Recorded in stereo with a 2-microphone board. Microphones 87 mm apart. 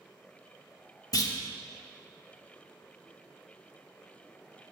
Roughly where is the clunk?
Left.